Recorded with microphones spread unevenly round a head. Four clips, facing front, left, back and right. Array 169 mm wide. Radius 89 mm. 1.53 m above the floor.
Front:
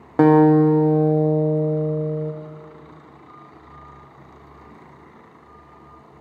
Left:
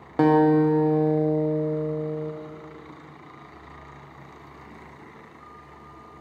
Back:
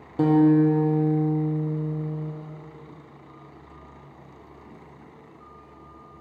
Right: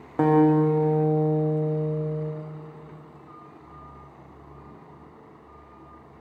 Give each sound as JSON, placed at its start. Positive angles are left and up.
{"t": 0.2, "sound": "a guitar", "azimuth_deg": 5, "distance_m": 0.5}